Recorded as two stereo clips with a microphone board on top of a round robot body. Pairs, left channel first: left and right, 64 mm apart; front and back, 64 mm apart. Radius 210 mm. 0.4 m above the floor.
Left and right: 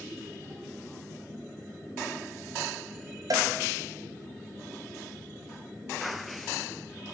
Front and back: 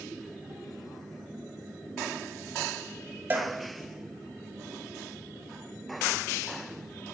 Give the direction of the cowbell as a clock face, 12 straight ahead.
4 o'clock.